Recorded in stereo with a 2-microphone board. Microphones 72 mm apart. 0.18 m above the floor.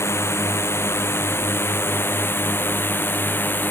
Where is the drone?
35° left (ahead or behind); by 3.7 s 30° left (ahead or behind).